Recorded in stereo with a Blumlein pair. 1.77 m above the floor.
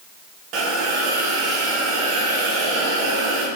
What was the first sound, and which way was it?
A hiss, 40° right.